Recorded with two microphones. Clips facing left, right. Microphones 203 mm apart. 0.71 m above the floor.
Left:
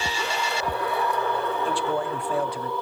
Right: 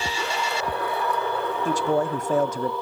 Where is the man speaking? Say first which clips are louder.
Right 3 dB; 45° right (ahead or behind), 0.7 m.